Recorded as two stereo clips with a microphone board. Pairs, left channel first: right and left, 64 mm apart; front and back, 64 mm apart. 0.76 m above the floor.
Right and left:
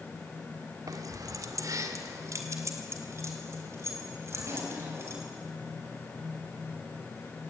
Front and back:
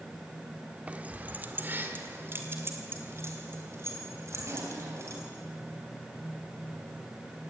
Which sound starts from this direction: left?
Keys jangling, at 0.9 s.